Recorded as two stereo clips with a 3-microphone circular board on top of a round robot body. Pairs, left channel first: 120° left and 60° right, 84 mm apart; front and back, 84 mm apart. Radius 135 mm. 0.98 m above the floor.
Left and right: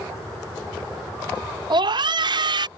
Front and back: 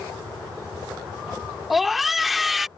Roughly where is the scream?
Right.